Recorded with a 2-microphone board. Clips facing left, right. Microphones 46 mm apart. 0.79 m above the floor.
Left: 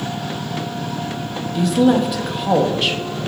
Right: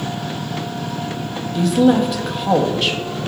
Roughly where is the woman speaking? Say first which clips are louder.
Right 1 dB; centre.